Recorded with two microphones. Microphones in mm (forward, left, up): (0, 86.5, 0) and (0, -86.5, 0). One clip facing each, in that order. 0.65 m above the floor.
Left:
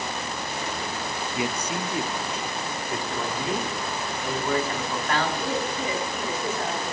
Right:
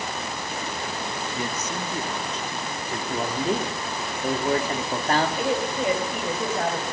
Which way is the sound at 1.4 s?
10° left (ahead or behind).